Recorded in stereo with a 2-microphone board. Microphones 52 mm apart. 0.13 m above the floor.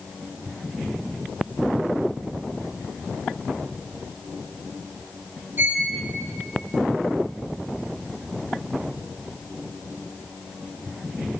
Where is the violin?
40° right (ahead or behind), 3 m.